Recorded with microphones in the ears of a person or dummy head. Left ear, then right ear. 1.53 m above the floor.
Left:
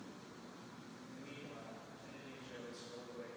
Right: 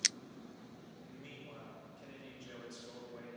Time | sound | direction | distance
1.0 | a man speaking | 80° right | 6 m